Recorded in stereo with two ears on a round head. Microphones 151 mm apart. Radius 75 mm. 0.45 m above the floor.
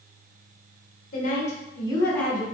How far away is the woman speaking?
About 1.3 m.